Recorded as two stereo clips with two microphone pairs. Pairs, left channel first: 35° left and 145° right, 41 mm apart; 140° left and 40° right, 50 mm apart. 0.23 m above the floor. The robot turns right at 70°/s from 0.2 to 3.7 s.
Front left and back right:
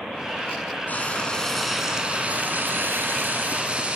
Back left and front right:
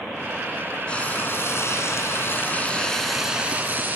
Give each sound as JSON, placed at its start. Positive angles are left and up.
{"t": 0.9, "sound": "frying", "azimuth_deg": 70, "distance_m": 3.0}